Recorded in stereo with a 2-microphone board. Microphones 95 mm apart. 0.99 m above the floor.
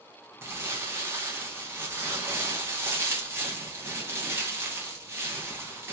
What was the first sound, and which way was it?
Crumpling, 25° right (ahead or behind).